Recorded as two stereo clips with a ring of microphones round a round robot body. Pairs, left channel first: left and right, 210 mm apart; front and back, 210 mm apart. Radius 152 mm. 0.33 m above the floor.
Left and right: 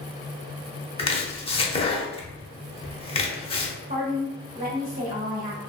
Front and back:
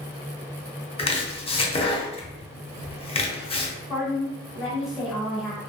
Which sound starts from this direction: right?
A woman speaking, at 3.9 s.